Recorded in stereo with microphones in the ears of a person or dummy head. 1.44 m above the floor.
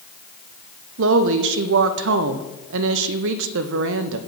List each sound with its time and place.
1.0 s a woman speaking: 70° right (ahead or behind), 0.6 m